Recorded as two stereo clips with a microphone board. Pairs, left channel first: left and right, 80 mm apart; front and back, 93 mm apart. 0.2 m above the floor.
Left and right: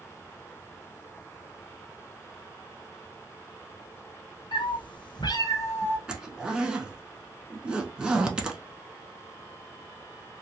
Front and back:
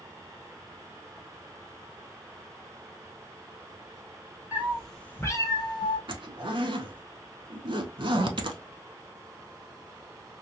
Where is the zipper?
170° right, 0.5 m.